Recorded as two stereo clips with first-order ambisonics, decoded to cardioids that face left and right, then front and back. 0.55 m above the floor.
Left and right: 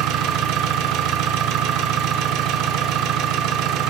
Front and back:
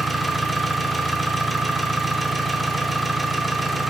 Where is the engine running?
95° right, 0.7 m.